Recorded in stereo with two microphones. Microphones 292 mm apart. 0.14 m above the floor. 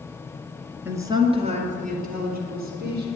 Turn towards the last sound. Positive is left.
turn(degrees=-35)  # may be behind; listen again after turning